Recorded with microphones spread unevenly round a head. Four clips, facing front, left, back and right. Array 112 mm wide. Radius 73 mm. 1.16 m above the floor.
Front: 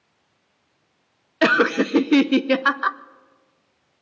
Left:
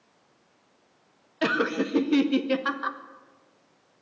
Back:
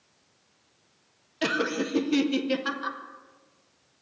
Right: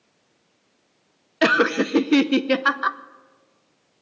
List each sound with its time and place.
1.4 s laughter: 50° right, 0.6 m